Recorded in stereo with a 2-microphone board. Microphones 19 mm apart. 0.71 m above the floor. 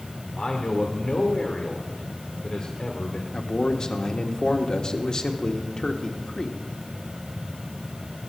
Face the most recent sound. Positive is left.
turn(degrees=40)  # may be behind; listen again after turning